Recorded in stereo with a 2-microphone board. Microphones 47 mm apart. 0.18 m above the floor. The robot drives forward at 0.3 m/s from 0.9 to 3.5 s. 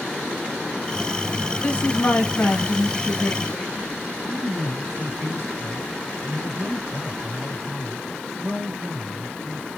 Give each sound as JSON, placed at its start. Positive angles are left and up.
{"t": 1.6, "sound": "a woman speaking", "side_deg": 30, "distance_m": 1.1}
{"t": 4.2, "sound": "a man speaking", "side_deg": -45, "distance_m": 2.5}